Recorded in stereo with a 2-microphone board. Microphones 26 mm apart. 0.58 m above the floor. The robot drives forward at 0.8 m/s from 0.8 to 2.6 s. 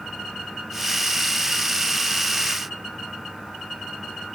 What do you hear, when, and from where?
Only background noise.